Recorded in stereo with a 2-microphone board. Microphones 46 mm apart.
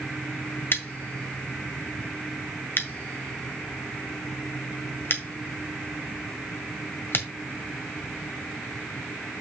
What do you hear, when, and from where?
0.7 s scissors: 50° left (ahead or behind), 1.6 m